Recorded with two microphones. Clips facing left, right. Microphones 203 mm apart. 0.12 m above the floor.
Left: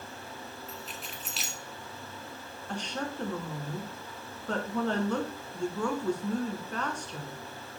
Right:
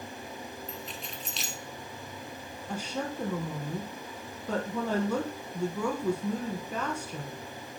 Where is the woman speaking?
5° right (ahead or behind), 1.3 m.